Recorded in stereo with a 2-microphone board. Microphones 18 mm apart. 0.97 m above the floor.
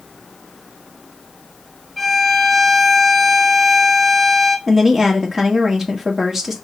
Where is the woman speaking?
20° right (ahead or behind), 1.6 m.